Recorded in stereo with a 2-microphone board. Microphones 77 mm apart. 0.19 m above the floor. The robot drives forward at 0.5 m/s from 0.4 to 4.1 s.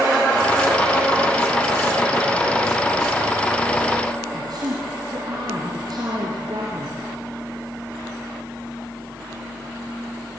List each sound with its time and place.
4.3 s a woman speaking: 60° right (ahead or behind), 3 m